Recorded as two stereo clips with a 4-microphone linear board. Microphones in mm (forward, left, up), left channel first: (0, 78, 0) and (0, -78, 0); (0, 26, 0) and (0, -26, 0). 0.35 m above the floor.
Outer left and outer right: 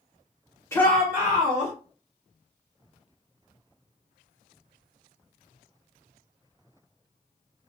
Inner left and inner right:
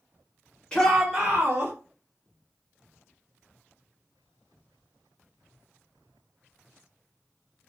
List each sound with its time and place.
0.7 s a shout: 20° left (ahead or behind), 0.9 m; by 1.7 s 45° right (ahead or behind), 1.1 m